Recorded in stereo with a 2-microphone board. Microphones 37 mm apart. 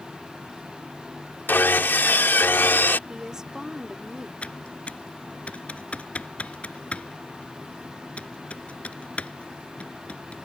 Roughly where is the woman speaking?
Centre.